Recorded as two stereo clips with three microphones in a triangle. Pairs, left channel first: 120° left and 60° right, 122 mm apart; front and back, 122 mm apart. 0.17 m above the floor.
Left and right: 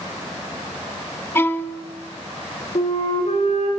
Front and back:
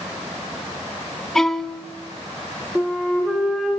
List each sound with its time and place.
1.4 s a violin: 80° left, 1.0 m
2.8 s a flute: 90° left, 7 m